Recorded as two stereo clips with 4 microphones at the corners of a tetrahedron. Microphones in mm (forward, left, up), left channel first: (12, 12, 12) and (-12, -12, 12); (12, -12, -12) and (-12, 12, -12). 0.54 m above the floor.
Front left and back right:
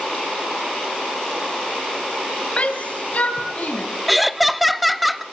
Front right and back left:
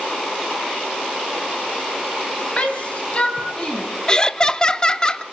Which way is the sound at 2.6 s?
Straight ahead.